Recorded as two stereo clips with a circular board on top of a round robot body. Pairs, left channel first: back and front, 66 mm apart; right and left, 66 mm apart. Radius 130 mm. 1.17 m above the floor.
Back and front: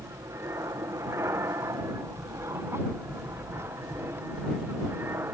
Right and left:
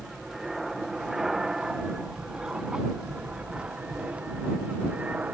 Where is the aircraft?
5° left; by 5.3 s 30° left.